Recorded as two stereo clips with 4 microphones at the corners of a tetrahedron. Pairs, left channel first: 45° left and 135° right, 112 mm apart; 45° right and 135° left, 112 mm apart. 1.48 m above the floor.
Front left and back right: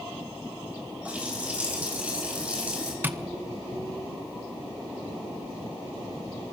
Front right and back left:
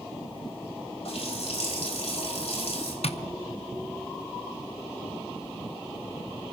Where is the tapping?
65° right, 0.7 m.